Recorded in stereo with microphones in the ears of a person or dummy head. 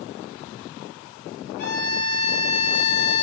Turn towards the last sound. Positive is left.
turn(degrees=45)  # may be behind; listen again after turning